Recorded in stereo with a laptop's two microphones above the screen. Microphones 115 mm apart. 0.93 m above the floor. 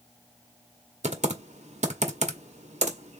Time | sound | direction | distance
1.0 | typing on a keyboard | 85° right | 0.9 m